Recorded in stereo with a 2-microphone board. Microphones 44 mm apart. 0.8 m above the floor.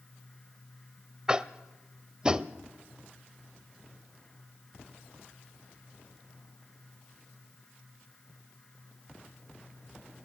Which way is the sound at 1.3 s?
20° right (ahead or behind).